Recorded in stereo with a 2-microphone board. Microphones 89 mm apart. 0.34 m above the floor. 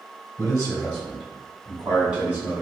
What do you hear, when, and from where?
0.4 s a man speaking: 25° left (ahead or behind), 1.5 m; by 2.6 s 25° right (ahead or behind), 1.9 m